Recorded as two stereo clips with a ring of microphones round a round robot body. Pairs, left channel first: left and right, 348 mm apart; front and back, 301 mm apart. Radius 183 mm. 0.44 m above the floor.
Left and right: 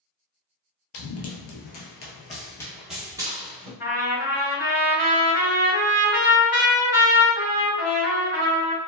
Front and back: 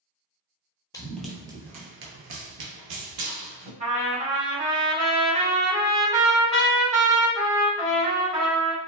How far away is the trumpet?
About 1.7 m.